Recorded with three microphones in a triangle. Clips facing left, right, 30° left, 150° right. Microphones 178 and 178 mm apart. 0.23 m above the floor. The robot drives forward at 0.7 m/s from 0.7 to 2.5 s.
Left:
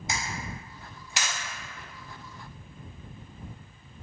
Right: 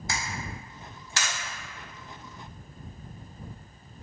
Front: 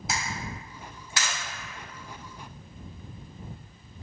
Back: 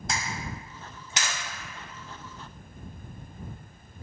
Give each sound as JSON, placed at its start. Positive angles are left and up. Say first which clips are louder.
{"t": 0.1, "sound": "a camera shutter", "louder": "left 1 dB, even", "azimuth_deg": 105, "distance_m": 0.5}